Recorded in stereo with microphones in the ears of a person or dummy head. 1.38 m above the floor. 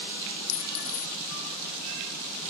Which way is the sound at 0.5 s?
75° left (ahead or behind).